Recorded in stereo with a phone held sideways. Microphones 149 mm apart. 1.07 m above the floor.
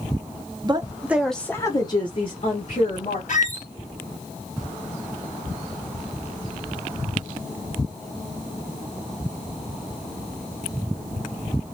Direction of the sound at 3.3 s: 55° left (ahead or behind).